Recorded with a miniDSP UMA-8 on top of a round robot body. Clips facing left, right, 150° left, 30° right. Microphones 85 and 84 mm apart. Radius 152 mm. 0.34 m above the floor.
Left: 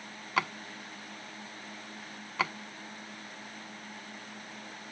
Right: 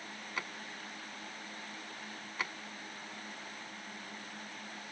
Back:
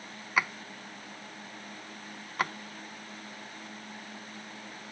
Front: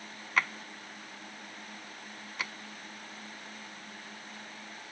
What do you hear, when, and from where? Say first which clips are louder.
0.4 s a drawer: left 12 dB, back 1 dB; 70° left
2.4 s a drawer: left 8 dB, back 9 dB; 100° left